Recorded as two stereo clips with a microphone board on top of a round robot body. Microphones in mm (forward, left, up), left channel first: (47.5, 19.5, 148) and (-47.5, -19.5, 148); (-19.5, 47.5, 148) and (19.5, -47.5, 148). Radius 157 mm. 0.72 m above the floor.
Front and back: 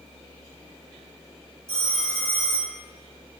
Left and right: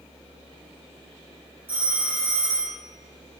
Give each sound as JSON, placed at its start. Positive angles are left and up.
{"t": 1.7, "sound": "a phone ringing", "azimuth_deg": -140, "distance_m": 3.5}